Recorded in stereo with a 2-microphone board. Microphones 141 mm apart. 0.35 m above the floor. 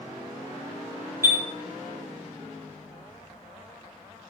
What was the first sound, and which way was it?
A chime, 20° right (ahead or behind).